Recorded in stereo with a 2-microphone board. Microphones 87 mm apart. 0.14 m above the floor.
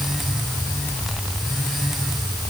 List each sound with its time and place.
Only background noise.